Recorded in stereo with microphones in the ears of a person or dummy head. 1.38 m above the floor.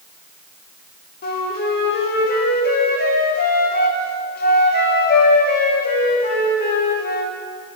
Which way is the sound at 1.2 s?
45° left (ahead or behind).